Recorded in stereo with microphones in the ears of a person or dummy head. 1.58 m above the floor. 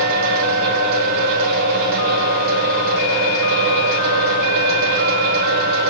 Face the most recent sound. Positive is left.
turn(degrees=-75)  # may be behind; listen again after turning